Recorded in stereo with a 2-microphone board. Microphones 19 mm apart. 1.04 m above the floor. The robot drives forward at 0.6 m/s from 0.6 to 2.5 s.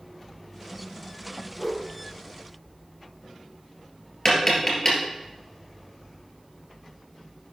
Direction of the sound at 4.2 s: 15° left (ahead or behind).